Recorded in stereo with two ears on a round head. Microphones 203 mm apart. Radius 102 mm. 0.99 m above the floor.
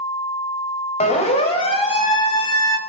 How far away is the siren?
About 4 m.